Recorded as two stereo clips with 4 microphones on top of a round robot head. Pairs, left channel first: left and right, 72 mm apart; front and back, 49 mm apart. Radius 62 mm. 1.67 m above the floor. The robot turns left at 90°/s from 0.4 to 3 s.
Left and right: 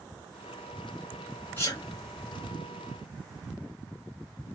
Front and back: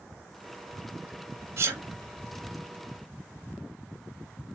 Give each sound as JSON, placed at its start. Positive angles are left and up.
{"t": 1.6, "sound": "a sneeze", "azimuth_deg": 165, "distance_m": 0.6}